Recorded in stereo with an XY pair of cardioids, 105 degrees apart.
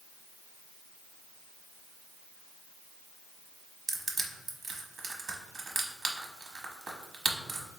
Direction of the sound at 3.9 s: 40° right.